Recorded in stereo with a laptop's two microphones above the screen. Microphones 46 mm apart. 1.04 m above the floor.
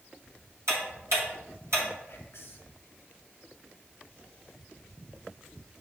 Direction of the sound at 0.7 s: 80° right.